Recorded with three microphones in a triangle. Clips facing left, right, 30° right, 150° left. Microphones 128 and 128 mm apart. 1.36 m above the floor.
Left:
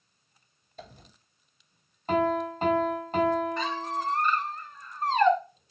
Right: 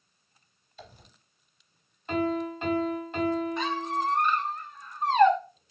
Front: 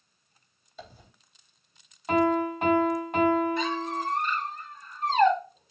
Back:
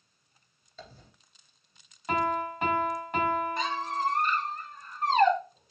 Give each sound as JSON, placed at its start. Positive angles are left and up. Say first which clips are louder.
{"t": 0.8, "sound": "a dropped coin", "louder": "left 3 dB, front 2 dB", "azimuth_deg": 50, "distance_m": 3.0}
{"t": 2.1, "sound": "a piano", "louder": "left 2 dB, front 5 dB", "azimuth_deg": 40, "distance_m": 3.0}
{"t": 3.6, "sound": "a squeak", "louder": "right 2 dB, front 2 dB", "azimuth_deg": -165, "distance_m": 1.8}